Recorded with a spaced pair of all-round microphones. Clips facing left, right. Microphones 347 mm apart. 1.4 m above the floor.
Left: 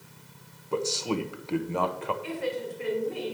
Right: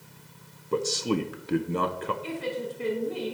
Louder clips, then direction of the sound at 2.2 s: Left 1 dB; 45° right (ahead or behind).